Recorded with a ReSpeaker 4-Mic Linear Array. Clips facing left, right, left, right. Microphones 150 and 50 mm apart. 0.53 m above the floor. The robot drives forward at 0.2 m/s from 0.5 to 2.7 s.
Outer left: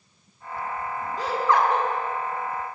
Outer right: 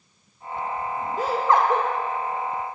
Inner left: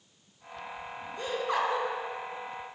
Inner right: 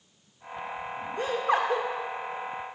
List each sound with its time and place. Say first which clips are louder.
1.2 s laughter: outer right 2 dB, inner right 4 dB; 50° right (ahead or behind), 1.4 m